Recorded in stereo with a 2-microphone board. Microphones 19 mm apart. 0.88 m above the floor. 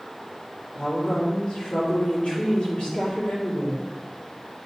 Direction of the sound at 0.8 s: 70° left (ahead or behind).